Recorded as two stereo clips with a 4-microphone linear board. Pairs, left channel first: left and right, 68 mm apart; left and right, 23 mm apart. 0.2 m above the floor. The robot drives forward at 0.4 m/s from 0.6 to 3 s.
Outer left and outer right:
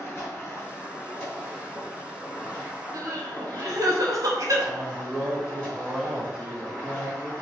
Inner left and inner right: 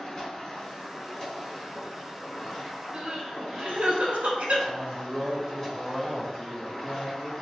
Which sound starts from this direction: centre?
A man speaking, at 4.7 s.